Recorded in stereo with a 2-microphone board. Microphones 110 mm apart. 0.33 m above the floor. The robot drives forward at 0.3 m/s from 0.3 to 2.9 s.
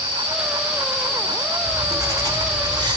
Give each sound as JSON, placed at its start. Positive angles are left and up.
{"t": 1.6, "sound": "writing", "side_deg": -30, "distance_m": 0.9}